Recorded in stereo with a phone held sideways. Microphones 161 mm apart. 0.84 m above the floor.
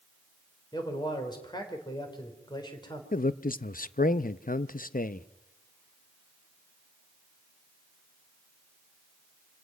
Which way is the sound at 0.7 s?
25° left (ahead or behind).